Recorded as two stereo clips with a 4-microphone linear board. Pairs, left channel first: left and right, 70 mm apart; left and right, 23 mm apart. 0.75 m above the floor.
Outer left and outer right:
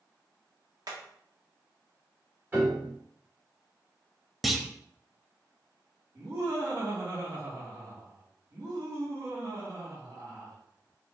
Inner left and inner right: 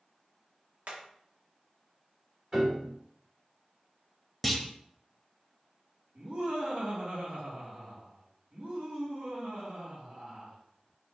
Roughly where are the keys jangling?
No keys jangling in this recording.